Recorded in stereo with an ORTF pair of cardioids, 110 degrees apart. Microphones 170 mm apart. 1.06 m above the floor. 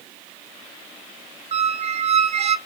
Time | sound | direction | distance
1.5 | a squeak | 40° right | 0.6 m